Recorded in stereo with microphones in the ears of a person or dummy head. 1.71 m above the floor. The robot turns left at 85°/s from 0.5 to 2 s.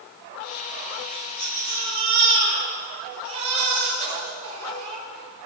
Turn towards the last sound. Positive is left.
turn(degrees=-35)